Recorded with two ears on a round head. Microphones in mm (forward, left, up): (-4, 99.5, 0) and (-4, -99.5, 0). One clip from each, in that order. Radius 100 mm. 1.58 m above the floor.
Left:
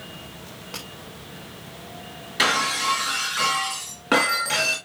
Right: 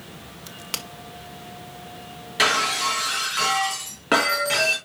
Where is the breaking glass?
10° right (ahead or behind), 4 m.